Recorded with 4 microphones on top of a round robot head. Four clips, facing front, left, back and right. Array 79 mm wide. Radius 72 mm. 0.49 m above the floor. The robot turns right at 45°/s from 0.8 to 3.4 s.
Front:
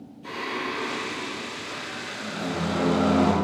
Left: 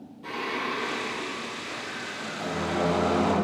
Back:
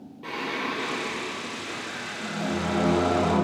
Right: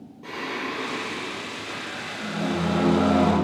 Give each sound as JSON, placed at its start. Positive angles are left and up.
{"t": 0.2, "sound": "singing", "azimuth_deg": -150, "distance_m": 4.0}